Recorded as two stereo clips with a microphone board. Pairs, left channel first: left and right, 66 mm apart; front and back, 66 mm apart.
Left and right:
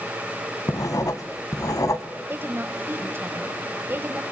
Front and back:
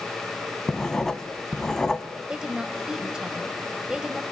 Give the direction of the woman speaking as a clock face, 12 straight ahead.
4 o'clock.